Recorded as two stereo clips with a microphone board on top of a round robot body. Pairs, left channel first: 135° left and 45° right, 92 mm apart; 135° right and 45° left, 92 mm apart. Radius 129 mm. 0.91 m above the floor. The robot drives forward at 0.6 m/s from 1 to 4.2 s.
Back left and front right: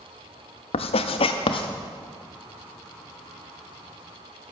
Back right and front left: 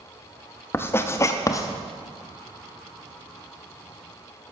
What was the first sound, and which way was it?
Writing, 155° left.